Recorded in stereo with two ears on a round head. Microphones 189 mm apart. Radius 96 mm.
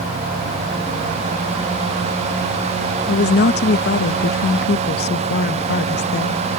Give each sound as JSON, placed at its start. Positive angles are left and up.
{"t": 3.1, "sound": "a woman speaking", "side_deg": 50}